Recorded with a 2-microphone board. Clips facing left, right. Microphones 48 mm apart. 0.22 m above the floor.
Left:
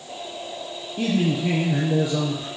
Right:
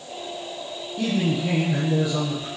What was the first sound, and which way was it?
A man speaking, 20° left (ahead or behind).